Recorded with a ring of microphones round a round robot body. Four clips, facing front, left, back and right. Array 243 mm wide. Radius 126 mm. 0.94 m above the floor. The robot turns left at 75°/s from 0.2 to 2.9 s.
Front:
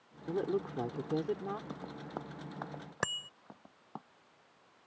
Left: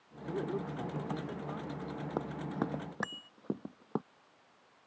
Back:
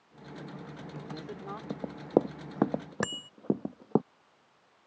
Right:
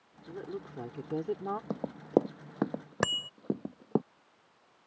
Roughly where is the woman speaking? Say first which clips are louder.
Left 4 dB, front 11 dB; ahead left.